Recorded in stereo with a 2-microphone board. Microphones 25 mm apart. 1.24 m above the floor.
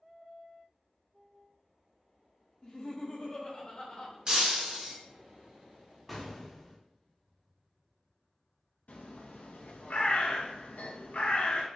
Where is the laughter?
35° left (ahead or behind), 0.6 m; by 4.2 s 45° left (ahead or behind), 1.3 m.